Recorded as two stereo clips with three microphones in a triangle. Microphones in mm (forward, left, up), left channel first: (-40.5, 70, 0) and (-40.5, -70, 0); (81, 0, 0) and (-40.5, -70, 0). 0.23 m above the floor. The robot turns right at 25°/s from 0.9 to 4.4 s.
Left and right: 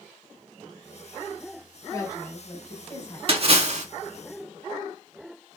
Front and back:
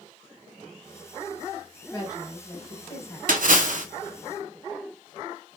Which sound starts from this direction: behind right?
A splash, at 3.3 s.